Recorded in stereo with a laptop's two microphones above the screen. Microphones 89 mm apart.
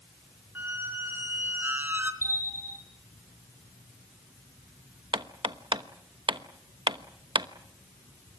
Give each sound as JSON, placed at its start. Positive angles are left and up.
{"t": 0.6, "sound": "a squeak", "side_deg": -20, "distance_m": 1.4}
{"t": 2.2, "sound": "a bell", "side_deg": 30, "distance_m": 4.0}
{"t": 5.1, "sound": "hammering", "side_deg": -65, "distance_m": 1.0}